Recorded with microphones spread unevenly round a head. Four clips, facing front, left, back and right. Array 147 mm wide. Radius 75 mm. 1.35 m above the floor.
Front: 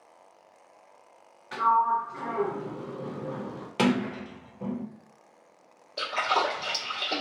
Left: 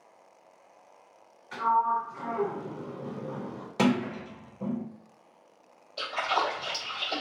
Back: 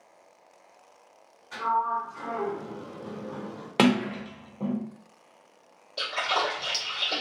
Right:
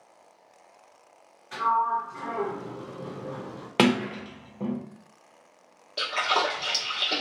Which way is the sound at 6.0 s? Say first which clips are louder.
Right 2 dB, front 2 dB; 75° right.